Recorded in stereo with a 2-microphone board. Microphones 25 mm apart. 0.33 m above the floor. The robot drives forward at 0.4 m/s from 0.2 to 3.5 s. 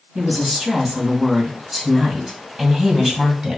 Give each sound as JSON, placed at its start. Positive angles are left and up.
{"t": 0.1, "sound": "a woman speaking", "side_deg": -10, "distance_m": 3.0}